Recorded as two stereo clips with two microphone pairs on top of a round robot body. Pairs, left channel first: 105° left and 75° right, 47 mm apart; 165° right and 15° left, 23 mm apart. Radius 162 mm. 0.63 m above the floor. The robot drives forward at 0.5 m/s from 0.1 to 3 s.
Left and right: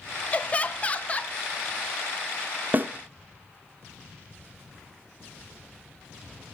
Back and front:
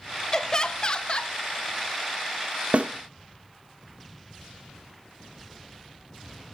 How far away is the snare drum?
About 0.7 m.